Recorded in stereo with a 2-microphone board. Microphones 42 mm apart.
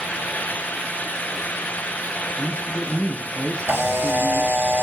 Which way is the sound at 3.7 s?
65° right (ahead or behind).